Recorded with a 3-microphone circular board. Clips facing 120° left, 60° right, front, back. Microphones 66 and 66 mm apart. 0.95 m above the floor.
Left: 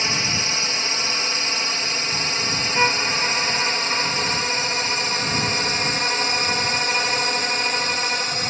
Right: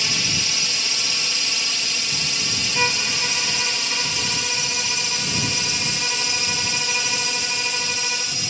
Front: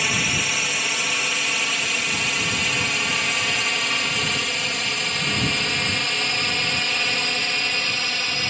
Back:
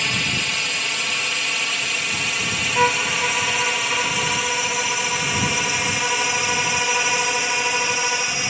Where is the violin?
165° right.